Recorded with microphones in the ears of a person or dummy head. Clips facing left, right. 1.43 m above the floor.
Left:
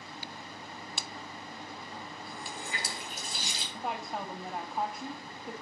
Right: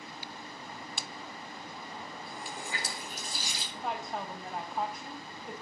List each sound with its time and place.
2.3 s a running tap: 25° left (ahead or behind), 3 m
3.7 s a woman speaking: centre (ahead or behind), 0.6 m